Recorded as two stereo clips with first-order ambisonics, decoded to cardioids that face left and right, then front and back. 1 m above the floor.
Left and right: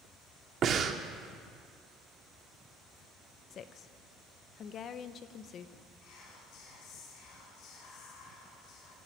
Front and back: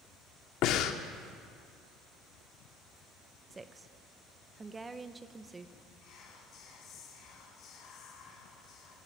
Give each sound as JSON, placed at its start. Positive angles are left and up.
{"t": 0.6, "sound": "breathing", "azimuth_deg": -35, "distance_m": 0.9}
{"t": 3.5, "sound": "a woman speaking", "azimuth_deg": 110, "distance_m": 0.6}
{"t": 6.0, "sound": "whispering", "azimuth_deg": 50, "distance_m": 2.0}